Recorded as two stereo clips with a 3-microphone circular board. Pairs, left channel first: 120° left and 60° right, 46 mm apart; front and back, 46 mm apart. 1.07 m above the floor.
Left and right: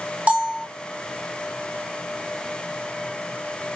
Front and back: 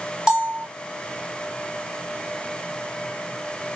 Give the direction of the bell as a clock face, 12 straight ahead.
4 o'clock.